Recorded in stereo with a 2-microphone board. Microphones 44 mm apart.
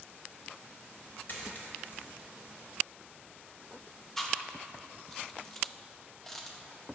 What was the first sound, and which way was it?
A dropped coin, 45° left (ahead or behind).